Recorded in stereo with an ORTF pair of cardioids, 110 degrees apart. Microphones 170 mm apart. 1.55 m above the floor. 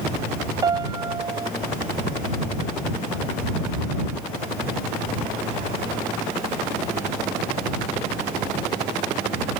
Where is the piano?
25° right.